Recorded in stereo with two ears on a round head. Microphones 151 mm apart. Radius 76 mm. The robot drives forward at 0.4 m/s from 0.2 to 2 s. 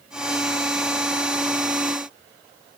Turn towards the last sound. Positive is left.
No sound to turn to.